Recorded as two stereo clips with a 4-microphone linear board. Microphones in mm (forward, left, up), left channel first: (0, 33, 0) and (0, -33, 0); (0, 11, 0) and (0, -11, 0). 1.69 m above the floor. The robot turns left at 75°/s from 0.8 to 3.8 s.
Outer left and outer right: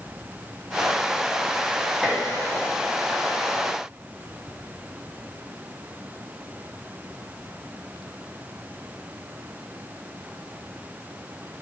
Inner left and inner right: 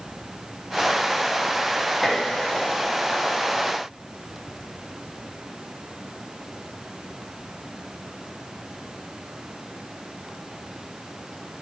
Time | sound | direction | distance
2.0 | dishes clattering | 15° right (ahead or behind) | 2.5 m